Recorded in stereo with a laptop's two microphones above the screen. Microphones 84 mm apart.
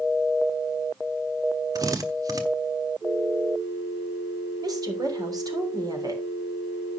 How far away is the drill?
About 1.2 m.